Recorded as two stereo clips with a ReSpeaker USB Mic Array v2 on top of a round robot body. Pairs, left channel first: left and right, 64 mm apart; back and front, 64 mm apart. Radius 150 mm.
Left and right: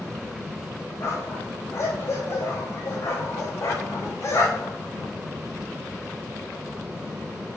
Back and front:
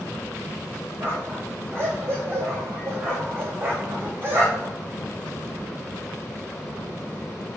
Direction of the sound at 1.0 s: 55° left.